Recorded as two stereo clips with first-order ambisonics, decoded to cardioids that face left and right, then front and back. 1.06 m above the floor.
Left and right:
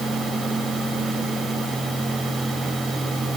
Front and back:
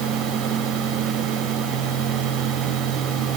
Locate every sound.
Only background noise.